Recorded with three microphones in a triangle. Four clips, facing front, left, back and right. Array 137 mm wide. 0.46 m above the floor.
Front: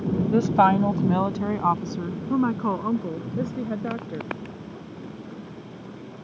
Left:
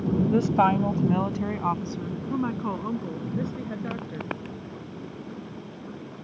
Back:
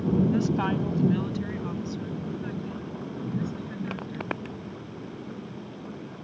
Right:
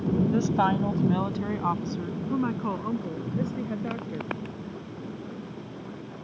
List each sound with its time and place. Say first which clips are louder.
0.3 s a woman speaking: left 5 dB, front 7 dB; 25° left; by 4.3 s 5° right